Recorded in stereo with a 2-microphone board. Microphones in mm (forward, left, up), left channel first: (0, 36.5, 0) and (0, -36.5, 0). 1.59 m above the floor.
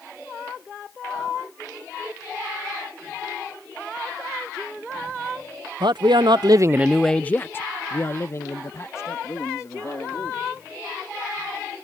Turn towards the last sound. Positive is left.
turn(degrees=50)  # may be behind; listen again after turning